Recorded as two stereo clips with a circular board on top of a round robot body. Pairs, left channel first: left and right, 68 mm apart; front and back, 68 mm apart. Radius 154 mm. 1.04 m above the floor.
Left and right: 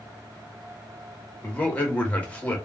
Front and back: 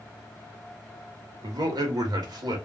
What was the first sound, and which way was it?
A man speaking, 165° left.